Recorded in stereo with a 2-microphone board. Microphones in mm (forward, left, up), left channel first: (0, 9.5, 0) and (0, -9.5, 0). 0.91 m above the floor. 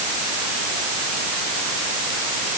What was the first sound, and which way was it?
Only background noise.